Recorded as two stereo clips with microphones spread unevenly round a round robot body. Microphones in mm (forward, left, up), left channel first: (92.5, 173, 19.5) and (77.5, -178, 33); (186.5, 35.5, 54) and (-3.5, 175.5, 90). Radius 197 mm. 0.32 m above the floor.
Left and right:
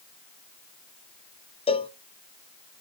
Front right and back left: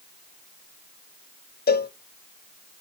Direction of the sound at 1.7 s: 15° left.